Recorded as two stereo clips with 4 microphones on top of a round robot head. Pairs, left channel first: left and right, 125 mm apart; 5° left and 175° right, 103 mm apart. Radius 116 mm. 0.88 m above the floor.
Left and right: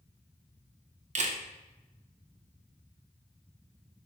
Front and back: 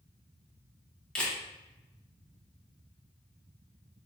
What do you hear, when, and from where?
1.1 s a camera shutter: 75° right, 0.7 m